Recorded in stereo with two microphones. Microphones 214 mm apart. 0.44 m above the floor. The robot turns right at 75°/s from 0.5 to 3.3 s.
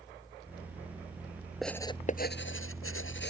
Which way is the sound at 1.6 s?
Centre (ahead or behind).